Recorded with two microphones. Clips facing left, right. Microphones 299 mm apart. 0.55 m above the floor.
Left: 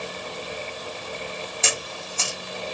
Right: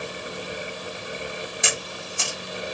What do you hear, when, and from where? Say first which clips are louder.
1.6 s a camera shutter: even; 15° right (ahead or behind), 1.0 m